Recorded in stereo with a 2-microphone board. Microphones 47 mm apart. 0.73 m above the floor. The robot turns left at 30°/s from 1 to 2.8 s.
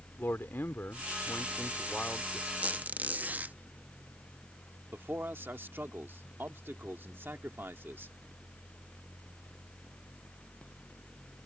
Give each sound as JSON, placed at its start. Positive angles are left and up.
{"t": 0.2, "sound": "a man speaking", "azimuth_deg": 60}
{"t": 2.6, "sound": "a squeak", "side_deg": -30}
{"t": 4.9, "sound": "a man speaking", "side_deg": -50}